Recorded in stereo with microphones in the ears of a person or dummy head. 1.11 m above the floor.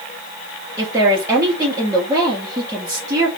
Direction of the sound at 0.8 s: 15° right (ahead or behind).